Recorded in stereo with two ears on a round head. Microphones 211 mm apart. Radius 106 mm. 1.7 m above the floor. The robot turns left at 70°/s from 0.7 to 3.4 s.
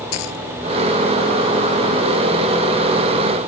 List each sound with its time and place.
0.1 s a dropped coin: 75° left (ahead or behind)